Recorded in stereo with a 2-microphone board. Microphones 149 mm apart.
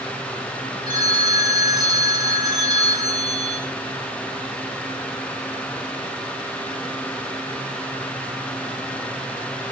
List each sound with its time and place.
0.9 s a phone ringing: 30° right (ahead or behind), 3 m